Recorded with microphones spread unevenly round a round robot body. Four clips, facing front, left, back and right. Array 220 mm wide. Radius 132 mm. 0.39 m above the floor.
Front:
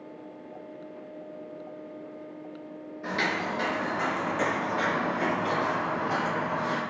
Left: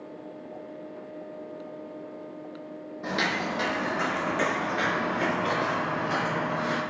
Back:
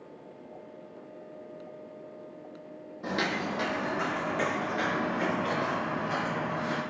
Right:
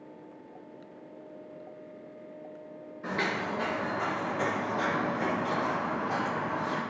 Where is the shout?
No shout in this recording.